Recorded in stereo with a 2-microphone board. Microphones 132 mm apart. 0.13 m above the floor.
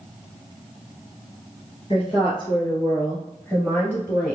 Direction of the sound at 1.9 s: 45° left (ahead or behind).